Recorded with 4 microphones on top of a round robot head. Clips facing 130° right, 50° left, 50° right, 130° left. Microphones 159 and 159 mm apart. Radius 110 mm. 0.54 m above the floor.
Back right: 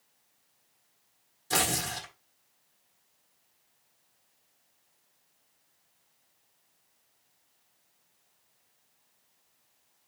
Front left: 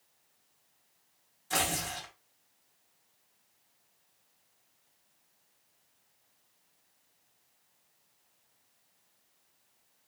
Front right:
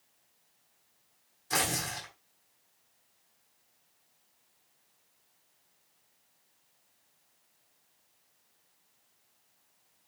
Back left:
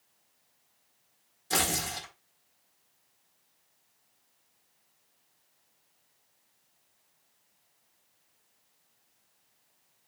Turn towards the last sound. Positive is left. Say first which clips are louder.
# back right 2 dB, back left 2 dB
turn(degrees=-175)